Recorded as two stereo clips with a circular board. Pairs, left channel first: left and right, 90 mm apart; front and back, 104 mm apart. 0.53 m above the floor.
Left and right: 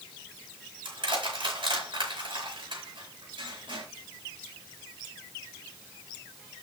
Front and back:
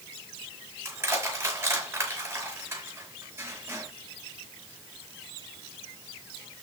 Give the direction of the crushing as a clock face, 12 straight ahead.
4 o'clock.